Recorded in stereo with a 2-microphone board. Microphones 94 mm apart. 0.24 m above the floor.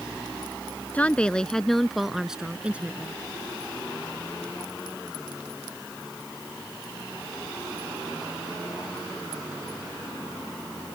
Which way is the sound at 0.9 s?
15° left (ahead or behind).